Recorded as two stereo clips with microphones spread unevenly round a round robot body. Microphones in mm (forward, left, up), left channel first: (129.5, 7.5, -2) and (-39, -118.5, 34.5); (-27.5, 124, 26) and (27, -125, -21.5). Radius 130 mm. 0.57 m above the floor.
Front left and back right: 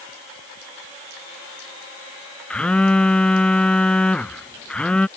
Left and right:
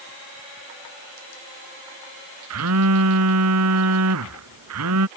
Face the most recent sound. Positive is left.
turn(degrees=-50)